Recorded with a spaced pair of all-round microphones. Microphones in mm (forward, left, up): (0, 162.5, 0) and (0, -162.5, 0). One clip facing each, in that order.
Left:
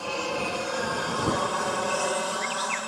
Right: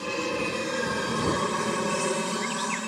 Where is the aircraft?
30° right (ahead or behind); by 2.9 s 35° right (ahead or behind).